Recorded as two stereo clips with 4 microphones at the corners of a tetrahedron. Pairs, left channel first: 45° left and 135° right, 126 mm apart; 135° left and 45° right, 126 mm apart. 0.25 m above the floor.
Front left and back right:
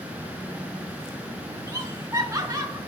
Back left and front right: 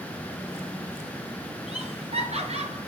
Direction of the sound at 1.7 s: 70° right.